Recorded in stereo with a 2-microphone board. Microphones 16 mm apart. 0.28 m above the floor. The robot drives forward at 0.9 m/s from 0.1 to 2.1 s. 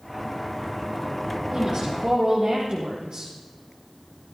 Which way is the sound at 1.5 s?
60° right (ahead or behind).